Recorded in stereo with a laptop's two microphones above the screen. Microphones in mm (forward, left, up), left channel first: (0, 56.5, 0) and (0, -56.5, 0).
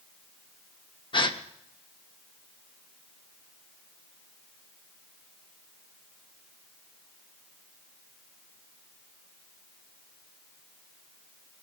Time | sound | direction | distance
1.1 | a gasp | 45° left (ahead or behind) | 0.5 m